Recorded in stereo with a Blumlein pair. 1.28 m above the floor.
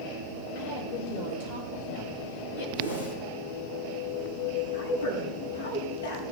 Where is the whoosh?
65° left, 5.5 m.